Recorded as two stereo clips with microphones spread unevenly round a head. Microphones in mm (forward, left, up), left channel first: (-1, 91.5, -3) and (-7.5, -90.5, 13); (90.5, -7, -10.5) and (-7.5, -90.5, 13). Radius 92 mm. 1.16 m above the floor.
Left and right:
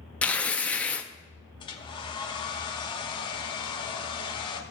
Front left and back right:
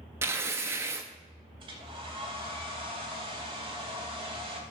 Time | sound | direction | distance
0.2 | tearing paper | 175° left | 0.5 m
1.6 | a hair dryer | 155° left | 1.0 m